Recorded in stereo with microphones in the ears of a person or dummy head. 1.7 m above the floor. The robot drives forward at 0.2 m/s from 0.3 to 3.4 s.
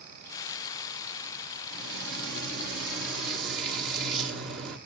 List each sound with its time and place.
1.7 s frying: 70° right (ahead or behind), 1.6 m